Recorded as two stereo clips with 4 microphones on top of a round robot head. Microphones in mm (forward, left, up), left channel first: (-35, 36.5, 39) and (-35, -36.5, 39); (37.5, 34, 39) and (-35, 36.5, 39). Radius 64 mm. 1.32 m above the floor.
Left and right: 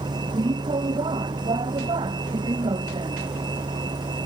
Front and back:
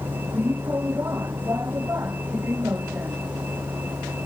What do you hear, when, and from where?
0.0 s a vehicle: 110° right